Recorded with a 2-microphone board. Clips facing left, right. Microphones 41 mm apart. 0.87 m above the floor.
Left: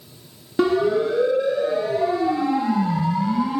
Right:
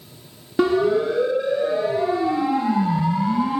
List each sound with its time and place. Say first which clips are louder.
0.6 s a siren: right 1 dB; 5° right (ahead or behind), 7.5 m; by 3.6 s 20° right (ahead or behind), 6 m